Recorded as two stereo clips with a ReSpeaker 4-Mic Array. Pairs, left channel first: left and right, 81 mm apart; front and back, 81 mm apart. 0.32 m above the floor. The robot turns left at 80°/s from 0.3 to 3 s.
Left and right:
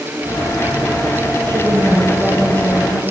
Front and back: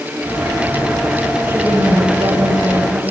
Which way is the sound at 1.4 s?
115° right.